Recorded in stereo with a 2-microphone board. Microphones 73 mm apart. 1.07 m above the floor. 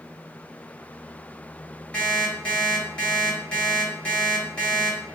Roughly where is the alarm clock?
Centre.